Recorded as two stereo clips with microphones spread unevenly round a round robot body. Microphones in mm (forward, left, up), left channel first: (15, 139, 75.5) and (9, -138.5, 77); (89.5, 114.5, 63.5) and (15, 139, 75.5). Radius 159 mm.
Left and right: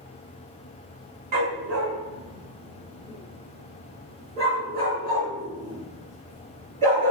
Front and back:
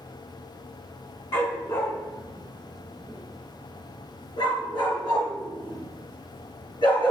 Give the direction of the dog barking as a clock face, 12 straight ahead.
2 o'clock.